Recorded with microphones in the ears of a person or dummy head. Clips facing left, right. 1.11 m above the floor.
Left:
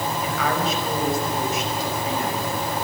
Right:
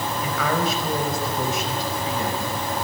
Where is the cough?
I don't hear a cough.